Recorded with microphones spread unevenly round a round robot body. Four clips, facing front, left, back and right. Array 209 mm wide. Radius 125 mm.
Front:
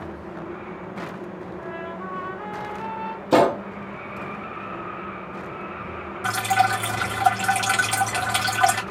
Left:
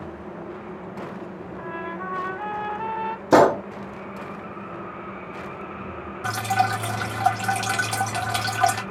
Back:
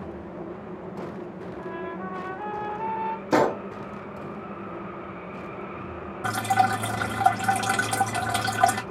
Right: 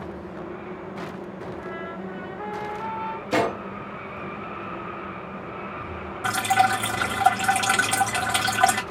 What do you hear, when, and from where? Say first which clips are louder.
1.6 s a trumpet: left 6 dB, back 1 dB; 90° left, 2.5 m
3.3 s a gunshot: left 9 dB, front 5 dB; 75° left, 0.5 m
6.2 s dripping: right 2 dB, front 1 dB; 170° right, 0.8 m